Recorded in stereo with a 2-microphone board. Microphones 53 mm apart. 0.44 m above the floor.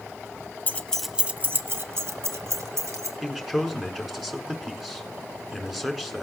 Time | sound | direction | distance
0.7 | keys jangling | 35° left (ahead or behind) | 0.9 m
3.2 | a man speaking | 5° right (ahead or behind) | 4 m